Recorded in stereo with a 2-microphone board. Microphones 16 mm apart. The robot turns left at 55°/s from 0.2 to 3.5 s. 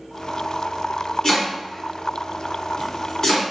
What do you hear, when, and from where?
1.2 s chopping: 40° left (ahead or behind), 1.4 m; by 3.4 s 15° left (ahead or behind), 1.4 m